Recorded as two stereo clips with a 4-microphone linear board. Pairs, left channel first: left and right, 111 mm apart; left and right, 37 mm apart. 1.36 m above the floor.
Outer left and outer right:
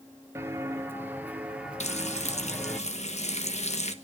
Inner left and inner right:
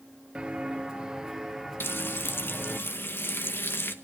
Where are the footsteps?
20° right (ahead or behind), 1.4 m; by 2.8 s centre (ahead or behind), 1.6 m.